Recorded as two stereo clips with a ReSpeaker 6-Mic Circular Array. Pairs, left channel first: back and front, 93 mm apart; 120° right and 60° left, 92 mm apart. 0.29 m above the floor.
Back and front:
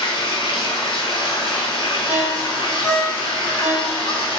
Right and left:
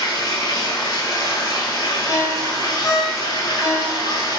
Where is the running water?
155° right, 0.9 m.